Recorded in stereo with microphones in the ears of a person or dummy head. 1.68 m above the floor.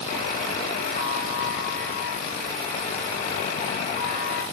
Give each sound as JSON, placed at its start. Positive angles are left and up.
{"t": 0.1, "sound": "a buzzer", "side_deg": 50, "distance_m": 2.0}